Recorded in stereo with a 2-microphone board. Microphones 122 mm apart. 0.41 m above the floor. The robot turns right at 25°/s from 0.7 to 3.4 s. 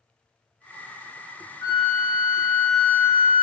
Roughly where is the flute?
Ahead left.